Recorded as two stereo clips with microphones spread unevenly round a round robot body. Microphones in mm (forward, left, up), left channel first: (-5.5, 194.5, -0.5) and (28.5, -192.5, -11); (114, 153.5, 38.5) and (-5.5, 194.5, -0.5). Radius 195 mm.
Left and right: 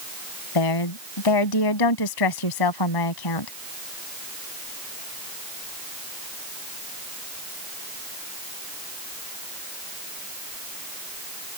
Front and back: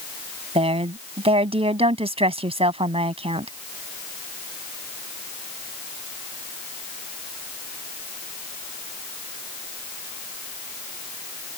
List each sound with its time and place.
0.6 s a woman speaking: 125° left